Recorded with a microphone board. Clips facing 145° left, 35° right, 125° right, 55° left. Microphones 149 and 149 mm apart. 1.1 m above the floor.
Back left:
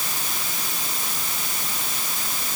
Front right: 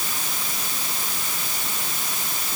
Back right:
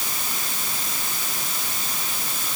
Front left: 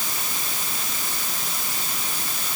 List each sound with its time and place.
Only background noise.